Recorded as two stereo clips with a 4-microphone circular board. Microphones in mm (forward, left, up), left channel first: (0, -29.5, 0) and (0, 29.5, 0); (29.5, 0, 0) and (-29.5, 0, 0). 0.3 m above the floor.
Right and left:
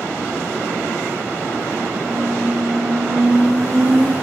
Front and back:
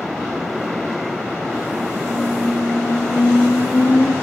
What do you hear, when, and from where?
2.0 s a squeak: 45° left, 2.5 m